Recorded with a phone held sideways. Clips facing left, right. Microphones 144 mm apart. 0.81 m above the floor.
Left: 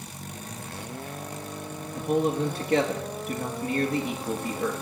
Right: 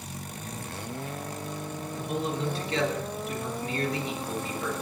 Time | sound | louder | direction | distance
1.9 | a man speaking | left 7 dB | 50° left (ahead or behind) | 1.3 m